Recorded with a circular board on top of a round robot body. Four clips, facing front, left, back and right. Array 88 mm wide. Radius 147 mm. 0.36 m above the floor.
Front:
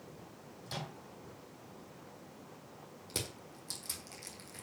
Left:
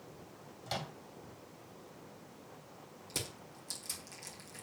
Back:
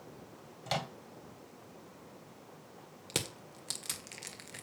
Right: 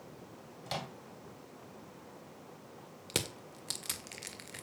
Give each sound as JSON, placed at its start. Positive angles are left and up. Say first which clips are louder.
{"t": 0.7, "sound": "a microwave", "louder": "right 1 dB, back 8 dB", "azimuth_deg": -175, "distance_m": 2.0}
{"t": 3.1, "sound": "crushing", "louder": "right 7 dB, back 4 dB", "azimuth_deg": -125, "distance_m": 1.9}